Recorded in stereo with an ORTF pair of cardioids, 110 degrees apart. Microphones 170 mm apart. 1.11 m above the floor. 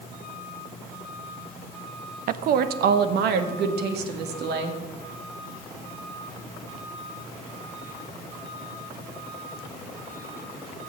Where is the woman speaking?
60° right, 0.8 m; by 4.8 s 80° right, 2.5 m.